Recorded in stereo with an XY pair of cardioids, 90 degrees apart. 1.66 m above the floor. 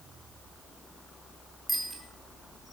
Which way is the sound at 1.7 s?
25° right.